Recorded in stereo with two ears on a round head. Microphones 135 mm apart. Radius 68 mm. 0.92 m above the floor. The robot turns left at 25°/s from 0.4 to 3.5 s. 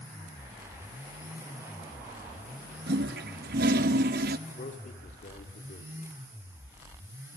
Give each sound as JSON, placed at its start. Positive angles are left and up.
{"t": 2.9, "sound": "a toilet flushing", "side_deg": -80, "distance_m": 0.8}
{"t": 4.5, "sound": "a man speaking", "side_deg": 60, "distance_m": 3.0}